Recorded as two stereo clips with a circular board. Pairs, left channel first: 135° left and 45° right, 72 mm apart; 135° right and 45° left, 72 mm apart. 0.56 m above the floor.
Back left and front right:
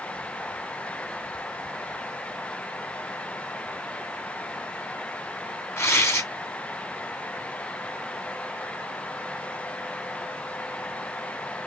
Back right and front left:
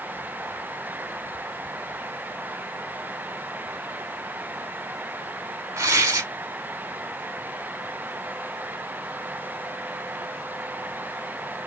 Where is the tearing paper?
85° left, 1.8 m.